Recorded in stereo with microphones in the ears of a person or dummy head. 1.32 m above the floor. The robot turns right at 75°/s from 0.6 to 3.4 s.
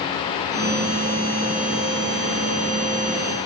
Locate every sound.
Only background noise.